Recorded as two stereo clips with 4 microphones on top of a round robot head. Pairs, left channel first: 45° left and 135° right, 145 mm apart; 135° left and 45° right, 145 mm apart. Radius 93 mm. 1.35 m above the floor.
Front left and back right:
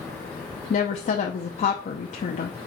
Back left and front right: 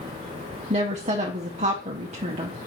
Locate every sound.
0.7 s a woman speaking: 5° left, 0.7 m